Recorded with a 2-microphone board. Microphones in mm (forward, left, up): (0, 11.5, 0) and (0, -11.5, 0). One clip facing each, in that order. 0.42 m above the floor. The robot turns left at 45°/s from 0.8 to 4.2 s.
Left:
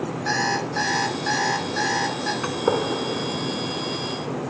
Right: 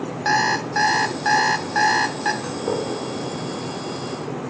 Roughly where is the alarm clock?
Ahead right.